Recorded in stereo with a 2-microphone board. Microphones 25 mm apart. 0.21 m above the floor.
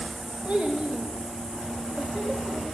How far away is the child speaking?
About 1.5 m.